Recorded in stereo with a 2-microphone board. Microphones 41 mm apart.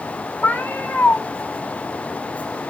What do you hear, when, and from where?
0.4 s a cat meowing: 45° left (ahead or behind), 1.1 m